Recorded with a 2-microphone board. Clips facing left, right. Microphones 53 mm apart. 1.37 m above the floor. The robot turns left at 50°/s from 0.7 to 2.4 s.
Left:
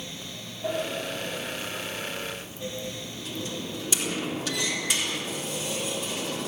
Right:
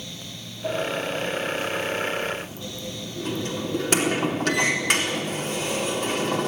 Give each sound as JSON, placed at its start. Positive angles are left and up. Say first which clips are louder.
{"t": 0.6, "sound": "a sliding door", "louder": "right 4 dB", "side_deg": 25, "distance_m": 4.0}